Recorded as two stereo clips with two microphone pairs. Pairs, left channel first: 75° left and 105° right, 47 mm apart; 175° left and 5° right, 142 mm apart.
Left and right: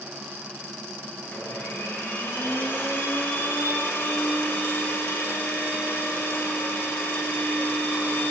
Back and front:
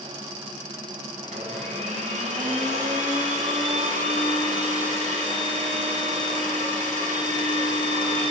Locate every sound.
1.2 s a blender: 30° left, 1.0 m